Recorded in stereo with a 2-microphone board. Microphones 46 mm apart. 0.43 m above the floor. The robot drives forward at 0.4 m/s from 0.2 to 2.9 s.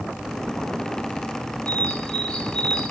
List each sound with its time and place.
1.7 s a bird: 20° left (ahead or behind), 1.0 m